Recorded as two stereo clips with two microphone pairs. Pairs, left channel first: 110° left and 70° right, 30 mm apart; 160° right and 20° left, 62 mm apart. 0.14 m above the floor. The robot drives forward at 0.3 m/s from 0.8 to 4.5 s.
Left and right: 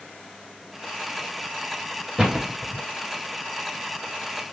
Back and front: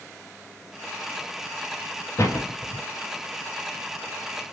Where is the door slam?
140° right, 1.4 m; by 2.8 s 145° right, 1.6 m.